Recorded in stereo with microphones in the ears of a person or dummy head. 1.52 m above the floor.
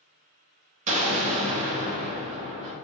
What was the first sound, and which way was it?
An explosion, 40° right (ahead or behind).